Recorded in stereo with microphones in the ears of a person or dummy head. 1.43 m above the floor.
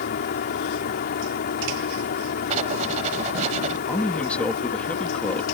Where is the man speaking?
5° left (ahead or behind).